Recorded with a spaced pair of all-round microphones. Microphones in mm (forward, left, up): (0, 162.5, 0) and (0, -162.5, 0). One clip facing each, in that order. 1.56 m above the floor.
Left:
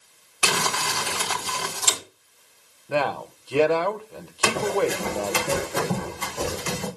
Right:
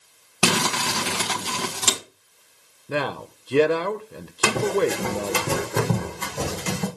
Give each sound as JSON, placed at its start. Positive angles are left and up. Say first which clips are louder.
{"t": 0.4, "sound": "crumpling", "louder": "right 5 dB", "side_deg": -80, "distance_m": 2.5}
{"t": 2.9, "sound": "a man speaking", "louder": "left 1 dB", "side_deg": -25, "distance_m": 0.9}
{"t": 4.4, "sound": "running footsteps", "louder": "right 2 dB", "side_deg": -45, "distance_m": 4.0}